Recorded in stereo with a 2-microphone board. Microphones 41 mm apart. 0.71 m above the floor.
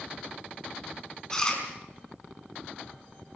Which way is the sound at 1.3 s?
15° left (ahead or behind).